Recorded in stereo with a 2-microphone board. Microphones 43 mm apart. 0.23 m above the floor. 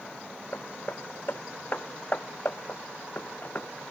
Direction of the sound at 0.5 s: 50° left (ahead or behind).